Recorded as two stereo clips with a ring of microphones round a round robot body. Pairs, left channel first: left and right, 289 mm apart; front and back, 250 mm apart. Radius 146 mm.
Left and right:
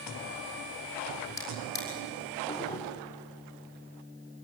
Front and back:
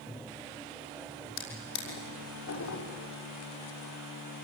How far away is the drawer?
About 6 m.